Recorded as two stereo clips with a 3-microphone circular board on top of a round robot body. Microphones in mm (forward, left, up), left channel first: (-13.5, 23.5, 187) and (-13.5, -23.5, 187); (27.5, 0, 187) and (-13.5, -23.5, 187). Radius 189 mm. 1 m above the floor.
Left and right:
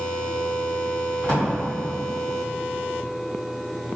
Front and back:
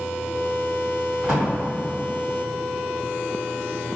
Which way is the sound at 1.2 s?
140° left.